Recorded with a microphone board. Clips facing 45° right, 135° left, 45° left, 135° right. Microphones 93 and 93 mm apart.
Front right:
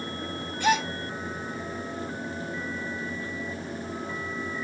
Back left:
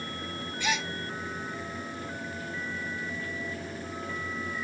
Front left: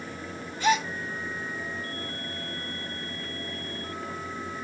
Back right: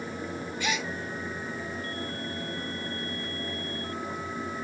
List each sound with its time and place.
0.6 s a gasp: 5° right, 1.0 m